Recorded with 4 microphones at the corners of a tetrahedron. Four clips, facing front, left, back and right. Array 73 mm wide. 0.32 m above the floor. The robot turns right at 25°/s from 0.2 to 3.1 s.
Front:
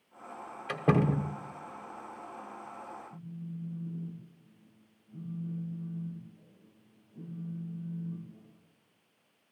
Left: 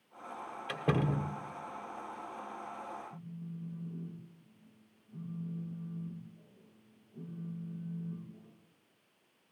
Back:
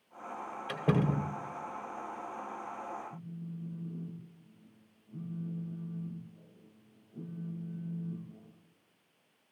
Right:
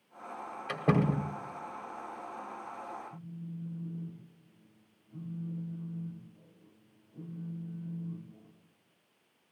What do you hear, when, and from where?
0.7 s a door slam: 40° right, 0.9 m; by 1.4 s 25° right, 0.9 m
3.1 s a phone buzzing: 165° right, 5 m